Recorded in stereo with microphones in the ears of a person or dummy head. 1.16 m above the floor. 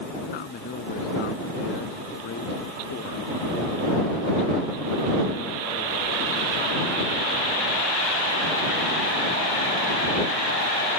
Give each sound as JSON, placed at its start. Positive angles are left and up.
{"t": 0.3, "sound": "a man speaking", "side_deg": 55}